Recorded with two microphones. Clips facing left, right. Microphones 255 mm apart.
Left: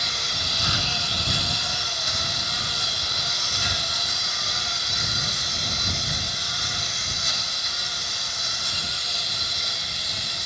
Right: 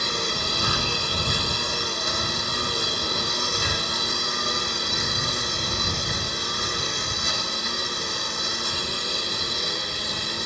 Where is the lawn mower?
65° right (ahead or behind); by 10.5 s 70° right (ahead or behind).